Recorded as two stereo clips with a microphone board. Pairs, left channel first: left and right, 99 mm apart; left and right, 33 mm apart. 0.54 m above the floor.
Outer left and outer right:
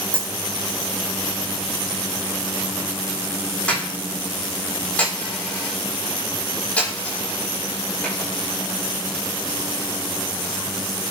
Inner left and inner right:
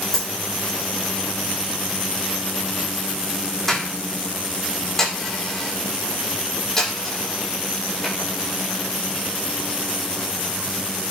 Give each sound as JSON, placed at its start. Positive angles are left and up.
{"t": 0.1, "sound": "a dropped coin", "side_deg": 15, "distance_m": 8.5}